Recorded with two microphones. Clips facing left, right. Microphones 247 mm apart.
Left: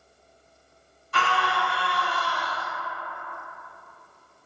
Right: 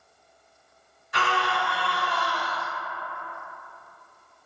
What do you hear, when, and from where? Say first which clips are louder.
1.1 s a scream: even; 15° right (ahead or behind), 1.0 m